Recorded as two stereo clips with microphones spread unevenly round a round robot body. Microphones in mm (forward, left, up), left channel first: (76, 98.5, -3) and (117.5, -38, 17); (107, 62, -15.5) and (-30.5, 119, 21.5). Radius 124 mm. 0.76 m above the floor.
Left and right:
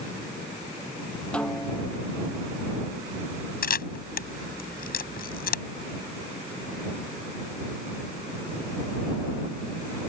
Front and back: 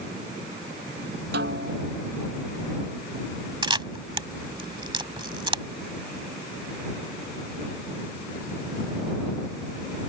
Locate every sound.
1.3 s a snare drum: 165° right
3.6 s a camera shutter: 100° left